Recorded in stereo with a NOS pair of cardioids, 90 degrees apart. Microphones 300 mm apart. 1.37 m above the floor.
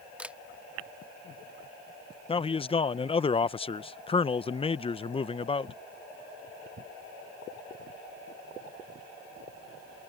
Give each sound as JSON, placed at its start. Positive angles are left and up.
{"t": 0.2, "sound": "a camera shutter", "azimuth_deg": -5}
{"t": 2.3, "sound": "a man speaking", "azimuth_deg": 20}